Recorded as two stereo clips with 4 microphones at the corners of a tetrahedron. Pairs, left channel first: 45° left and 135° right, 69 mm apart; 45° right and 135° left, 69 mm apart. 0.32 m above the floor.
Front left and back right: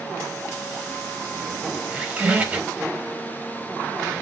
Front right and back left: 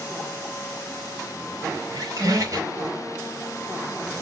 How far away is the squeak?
About 1.2 m.